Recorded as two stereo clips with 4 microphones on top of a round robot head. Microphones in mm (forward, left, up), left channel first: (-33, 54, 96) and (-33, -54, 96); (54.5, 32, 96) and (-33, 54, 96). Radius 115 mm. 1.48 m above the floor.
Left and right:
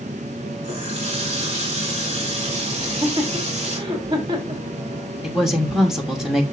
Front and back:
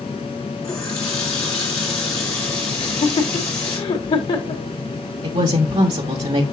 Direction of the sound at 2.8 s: 40° right.